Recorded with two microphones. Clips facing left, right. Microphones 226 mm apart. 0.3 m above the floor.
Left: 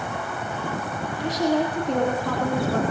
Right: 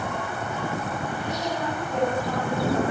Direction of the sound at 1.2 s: 85° left.